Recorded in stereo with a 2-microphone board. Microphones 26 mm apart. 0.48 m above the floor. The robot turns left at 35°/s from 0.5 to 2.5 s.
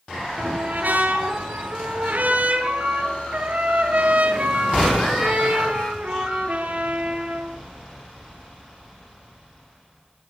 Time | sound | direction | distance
0.4 | a trumpet | 60° right | 8 m